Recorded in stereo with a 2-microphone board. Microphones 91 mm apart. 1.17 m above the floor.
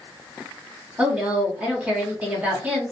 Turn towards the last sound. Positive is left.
turn(degrees=-15)  # may be behind; listen again after turning